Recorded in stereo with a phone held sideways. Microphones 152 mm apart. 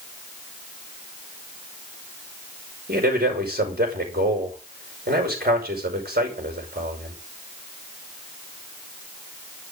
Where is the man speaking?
80° right, 5.5 m.